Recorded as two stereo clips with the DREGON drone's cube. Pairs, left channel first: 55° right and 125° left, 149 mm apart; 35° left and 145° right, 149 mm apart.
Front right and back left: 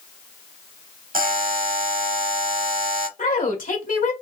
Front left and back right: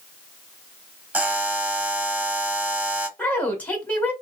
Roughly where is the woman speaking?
Ahead right.